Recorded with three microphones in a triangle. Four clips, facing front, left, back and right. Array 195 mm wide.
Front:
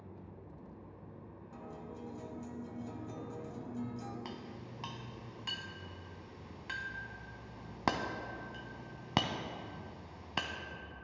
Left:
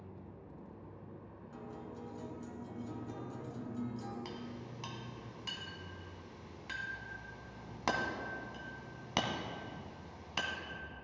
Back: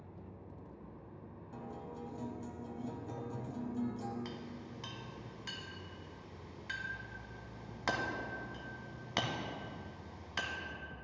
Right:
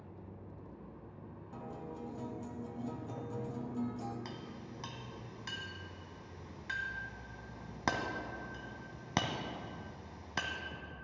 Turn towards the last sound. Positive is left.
turn(degrees=-20)